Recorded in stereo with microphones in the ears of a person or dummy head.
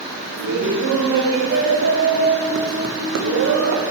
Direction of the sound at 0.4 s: 60° right (ahead or behind).